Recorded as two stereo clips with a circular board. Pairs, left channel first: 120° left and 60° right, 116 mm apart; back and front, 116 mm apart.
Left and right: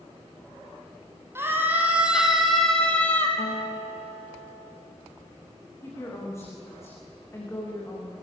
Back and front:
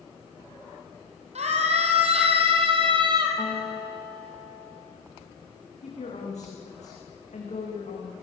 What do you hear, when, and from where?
1.4 s a scream: 10° left, 4.5 m; by 3.3 s 50° left, 4 m
3.4 s a guitar: 115° left, 5.5 m
5.8 s a woman speaking: 175° right, 9 m